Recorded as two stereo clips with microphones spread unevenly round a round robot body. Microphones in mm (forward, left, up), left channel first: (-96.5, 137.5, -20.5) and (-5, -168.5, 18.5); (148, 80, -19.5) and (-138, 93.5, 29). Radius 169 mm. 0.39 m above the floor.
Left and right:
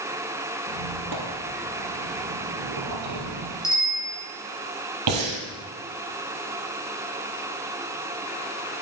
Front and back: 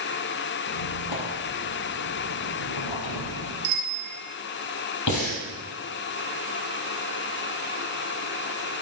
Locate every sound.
0.7 s a squeak: 30° right, 3.5 m
3.6 s a bicycle bell: 175° right, 7 m
5.1 s breathing: 45° right, 4.5 m